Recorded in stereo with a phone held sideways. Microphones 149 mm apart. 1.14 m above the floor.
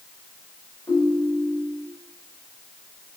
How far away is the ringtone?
About 2.5 m.